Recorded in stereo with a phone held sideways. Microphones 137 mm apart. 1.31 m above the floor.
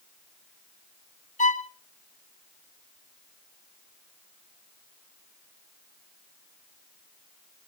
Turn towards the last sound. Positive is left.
turn(degrees=70)  # may be behind; listen again after turning